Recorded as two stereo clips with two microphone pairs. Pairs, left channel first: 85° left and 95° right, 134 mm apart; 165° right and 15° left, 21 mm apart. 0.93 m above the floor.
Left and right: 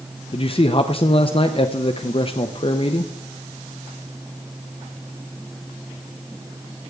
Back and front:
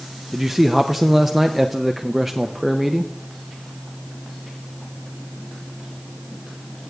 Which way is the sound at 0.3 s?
95° left.